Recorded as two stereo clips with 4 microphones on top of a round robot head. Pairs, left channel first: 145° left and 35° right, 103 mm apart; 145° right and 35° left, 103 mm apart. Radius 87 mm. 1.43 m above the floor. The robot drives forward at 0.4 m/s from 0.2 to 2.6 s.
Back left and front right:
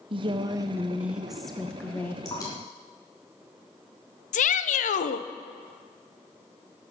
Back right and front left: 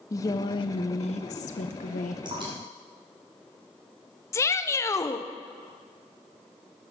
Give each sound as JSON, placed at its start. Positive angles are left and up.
{"t": 0.1, "sound": "a woman speaking", "azimuth_deg": -85, "distance_m": 0.6}
{"t": 2.2, "sound": "dripping", "azimuth_deg": 85, "distance_m": 3.5}
{"t": 4.3, "sound": "a shout", "azimuth_deg": 150, "distance_m": 0.7}